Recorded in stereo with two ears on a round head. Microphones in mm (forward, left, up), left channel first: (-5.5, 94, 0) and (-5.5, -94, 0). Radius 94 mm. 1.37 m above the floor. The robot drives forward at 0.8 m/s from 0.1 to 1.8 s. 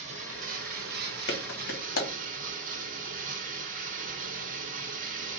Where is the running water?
35° right (ahead or behind), 1.3 m; by 5.4 s 40° right (ahead or behind), 1.1 m.